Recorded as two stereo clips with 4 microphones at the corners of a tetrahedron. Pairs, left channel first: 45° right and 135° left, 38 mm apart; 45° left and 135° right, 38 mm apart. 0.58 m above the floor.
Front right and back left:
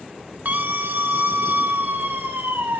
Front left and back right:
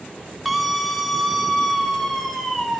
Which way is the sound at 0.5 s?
135° left.